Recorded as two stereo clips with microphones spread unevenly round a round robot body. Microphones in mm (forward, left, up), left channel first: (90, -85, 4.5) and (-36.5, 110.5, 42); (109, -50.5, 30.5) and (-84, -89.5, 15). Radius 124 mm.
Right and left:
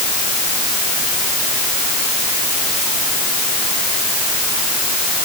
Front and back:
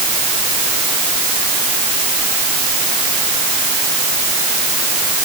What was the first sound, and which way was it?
Only background noise.